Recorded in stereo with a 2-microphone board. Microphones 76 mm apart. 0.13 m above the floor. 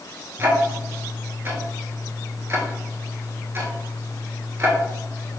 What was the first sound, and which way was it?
Ticking, 35° right (ahead or behind).